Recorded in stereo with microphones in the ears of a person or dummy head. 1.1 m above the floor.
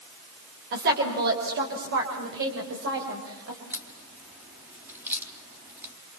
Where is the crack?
15° right (ahead or behind), 4 m.